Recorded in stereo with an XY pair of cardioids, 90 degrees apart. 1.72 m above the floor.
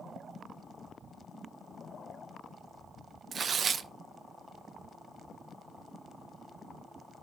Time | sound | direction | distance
3.3 | tearing paper | 50° right | 0.6 m